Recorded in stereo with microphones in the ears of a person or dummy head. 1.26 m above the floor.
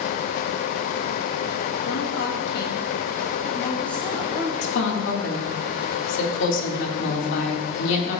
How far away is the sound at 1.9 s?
About 1.2 m.